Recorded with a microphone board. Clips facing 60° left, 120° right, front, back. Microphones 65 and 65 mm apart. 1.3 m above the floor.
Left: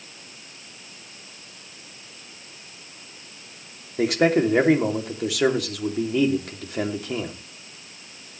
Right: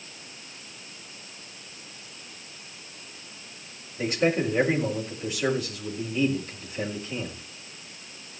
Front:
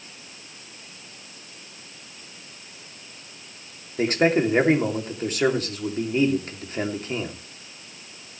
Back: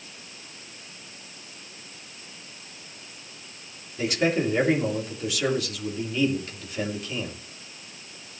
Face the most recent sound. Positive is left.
turn(degrees=50)